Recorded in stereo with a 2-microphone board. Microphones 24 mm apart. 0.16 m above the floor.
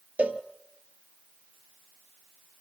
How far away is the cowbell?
About 1.2 m.